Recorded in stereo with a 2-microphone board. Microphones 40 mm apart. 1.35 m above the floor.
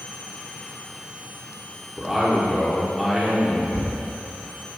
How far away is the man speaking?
About 1.0 m.